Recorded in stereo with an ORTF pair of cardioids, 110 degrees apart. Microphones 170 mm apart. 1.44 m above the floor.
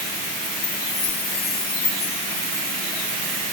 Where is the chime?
35° left, 4.5 m.